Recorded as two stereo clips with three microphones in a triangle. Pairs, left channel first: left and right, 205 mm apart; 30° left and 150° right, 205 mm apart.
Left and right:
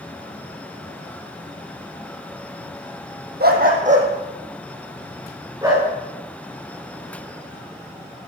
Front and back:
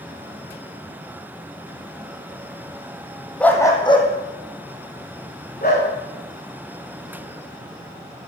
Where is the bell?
I don't hear a bell.